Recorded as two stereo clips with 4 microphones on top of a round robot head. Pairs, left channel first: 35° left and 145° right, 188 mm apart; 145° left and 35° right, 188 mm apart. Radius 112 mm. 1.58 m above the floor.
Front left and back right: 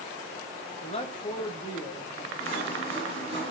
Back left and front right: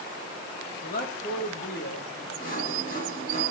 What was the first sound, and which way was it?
A man speaking, 95° left.